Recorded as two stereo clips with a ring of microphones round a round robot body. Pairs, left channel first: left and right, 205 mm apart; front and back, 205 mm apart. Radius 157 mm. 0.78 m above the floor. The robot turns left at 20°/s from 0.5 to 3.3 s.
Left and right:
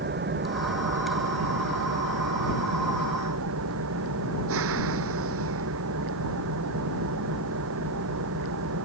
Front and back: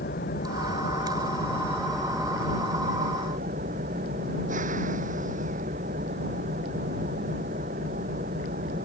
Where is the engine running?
60° right; by 8.9 s 115° right.